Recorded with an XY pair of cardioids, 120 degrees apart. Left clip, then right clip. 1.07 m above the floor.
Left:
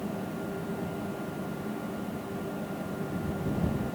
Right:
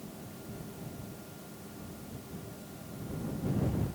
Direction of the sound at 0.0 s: 65° left.